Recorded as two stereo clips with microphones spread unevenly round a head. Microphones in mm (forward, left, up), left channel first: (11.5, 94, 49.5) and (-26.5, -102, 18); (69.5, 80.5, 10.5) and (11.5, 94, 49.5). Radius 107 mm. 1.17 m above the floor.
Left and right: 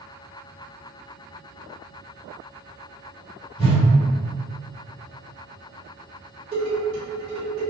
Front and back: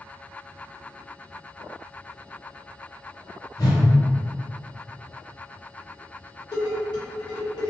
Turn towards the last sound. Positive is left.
turn(degrees=-35)